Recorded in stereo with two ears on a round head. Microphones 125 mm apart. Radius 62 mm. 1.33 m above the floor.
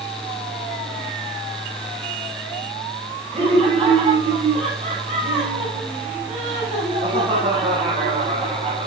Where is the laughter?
45° right (ahead or behind), 7 m.